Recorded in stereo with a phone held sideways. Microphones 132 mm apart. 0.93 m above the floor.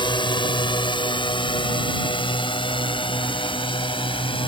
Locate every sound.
0.0 s a drone: 35° left (ahead or behind); by 4.5 s 40° left (ahead or behind)